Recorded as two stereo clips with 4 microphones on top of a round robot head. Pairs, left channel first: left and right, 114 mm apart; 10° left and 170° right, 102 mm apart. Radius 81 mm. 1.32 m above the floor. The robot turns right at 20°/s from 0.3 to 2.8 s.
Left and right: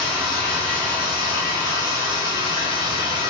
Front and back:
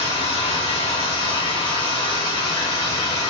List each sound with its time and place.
0.0 s running water: 10° left, 1.1 m; by 3.3 s 60° left, 1.1 m